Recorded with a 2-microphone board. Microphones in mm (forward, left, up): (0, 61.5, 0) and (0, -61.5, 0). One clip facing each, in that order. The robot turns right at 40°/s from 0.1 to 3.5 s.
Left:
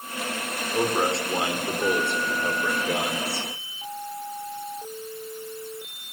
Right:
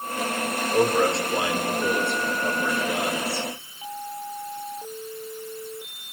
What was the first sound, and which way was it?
A man speaking, 5° left.